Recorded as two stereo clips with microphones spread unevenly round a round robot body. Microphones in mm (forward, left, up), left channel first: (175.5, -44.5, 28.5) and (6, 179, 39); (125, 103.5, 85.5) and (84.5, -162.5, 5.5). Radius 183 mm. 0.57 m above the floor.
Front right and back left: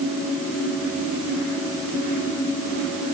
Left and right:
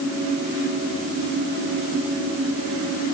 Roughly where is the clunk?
No clunk in this recording.